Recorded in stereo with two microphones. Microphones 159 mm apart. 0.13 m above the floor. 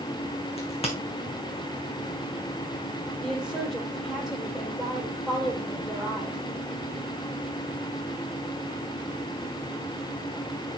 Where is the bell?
I don't hear a bell.